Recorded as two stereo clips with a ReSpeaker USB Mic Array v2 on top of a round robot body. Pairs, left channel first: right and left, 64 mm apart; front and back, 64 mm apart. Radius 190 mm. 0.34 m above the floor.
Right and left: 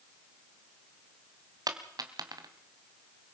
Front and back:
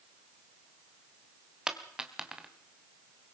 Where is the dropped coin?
100° left, 1.6 m.